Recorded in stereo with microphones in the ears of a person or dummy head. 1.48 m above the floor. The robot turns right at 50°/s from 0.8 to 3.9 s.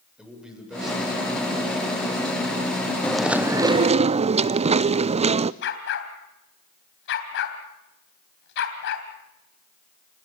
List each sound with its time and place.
0.2 s a man speaking: 5° right, 7 m; by 3.4 s 125° left, 7 m
3.0 s chewing: 170° left, 0.5 m; by 5.5 s 145° right, 0.5 m
5.6 s a dog barking: 70° left (ahead or behind), 3 m